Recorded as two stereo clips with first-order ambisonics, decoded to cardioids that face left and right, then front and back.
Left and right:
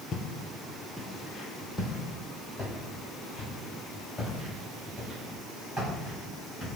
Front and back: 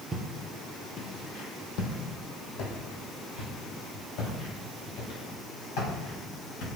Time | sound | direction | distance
0.1 | footsteps | 120° left | 0.6 m